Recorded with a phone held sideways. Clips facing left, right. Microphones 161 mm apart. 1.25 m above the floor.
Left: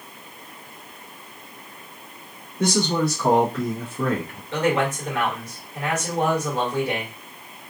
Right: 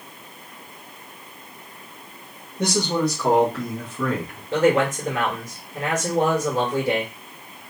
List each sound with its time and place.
2.6 s a man speaking: 20° right (ahead or behind), 2.0 m; by 4.4 s 30° left (ahead or behind), 1.1 m
4.5 s a man speaking: 35° right (ahead or behind), 2.5 m